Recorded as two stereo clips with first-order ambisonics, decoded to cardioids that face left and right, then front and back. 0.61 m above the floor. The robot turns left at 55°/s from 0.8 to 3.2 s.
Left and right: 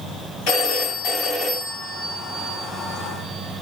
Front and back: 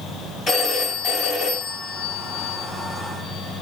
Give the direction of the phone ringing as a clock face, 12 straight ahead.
10 o'clock.